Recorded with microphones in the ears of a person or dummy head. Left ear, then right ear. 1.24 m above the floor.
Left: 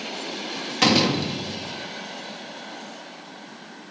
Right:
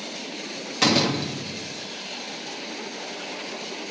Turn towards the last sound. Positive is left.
turn(degrees=5)  # may be behind; listen again after turning